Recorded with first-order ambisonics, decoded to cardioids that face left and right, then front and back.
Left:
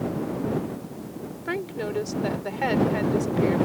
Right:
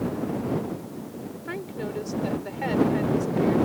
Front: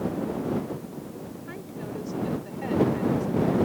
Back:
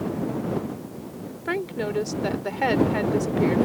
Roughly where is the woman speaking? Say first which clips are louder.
Left 4 dB, back 15 dB; behind.